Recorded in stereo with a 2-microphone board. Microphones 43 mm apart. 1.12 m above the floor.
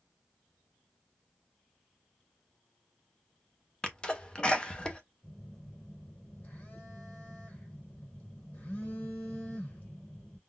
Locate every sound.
3.8 s a sneeze: 25° left (ahead or behind), 0.6 m
5.2 s a phone buzzing: 50° left (ahead or behind), 1.9 m